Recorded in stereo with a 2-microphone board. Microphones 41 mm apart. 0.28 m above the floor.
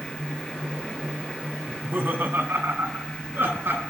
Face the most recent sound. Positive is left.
turn(degrees=-60)  # may be behind; listen again after turning